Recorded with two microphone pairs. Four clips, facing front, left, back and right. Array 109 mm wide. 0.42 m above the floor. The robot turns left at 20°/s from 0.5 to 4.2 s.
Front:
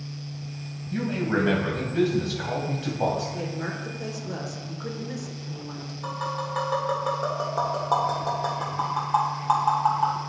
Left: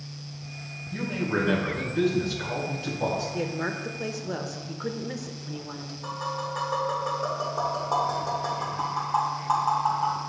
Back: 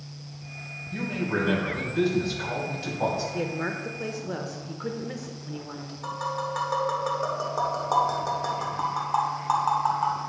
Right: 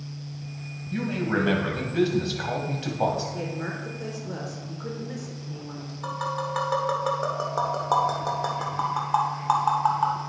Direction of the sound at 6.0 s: 100° right.